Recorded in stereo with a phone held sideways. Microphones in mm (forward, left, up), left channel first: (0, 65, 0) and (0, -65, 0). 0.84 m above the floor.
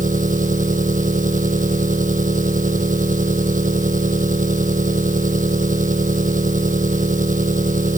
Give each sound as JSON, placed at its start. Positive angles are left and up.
{"t": 0.0, "sound": "an engine running", "side_deg": -80}